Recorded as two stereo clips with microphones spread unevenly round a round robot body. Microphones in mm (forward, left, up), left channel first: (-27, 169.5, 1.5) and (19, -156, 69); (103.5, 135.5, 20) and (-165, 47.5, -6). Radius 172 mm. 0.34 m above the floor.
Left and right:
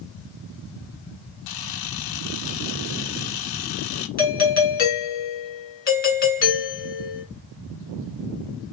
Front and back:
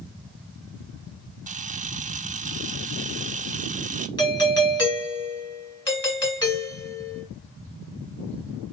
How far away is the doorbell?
About 2 m.